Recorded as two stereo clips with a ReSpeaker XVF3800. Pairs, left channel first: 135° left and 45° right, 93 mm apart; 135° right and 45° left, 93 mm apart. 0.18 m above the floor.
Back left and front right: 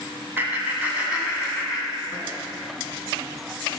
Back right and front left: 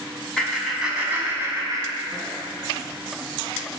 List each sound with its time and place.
0.4 s laughter: 70° right, 1.3 m; by 2.3 s 40° left, 1.7 m